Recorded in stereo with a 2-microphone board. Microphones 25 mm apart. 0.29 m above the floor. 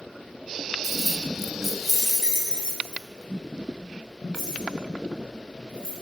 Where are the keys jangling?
5° right (ahead or behind), 0.6 m; by 5.9 s 25° left (ahead or behind), 3.5 m.